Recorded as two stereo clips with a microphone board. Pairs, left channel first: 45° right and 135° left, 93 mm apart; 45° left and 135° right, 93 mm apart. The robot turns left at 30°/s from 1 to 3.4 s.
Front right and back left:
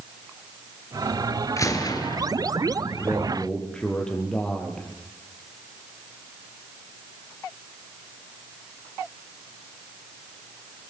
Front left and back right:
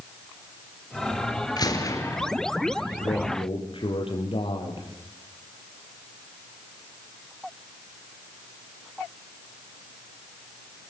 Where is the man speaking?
45° left, 5.5 m; by 4.9 s 35° left, 5.5 m.